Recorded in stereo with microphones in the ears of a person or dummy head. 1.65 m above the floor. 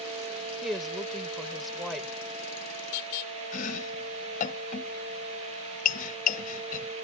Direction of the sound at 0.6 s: 5° right (ahead or behind).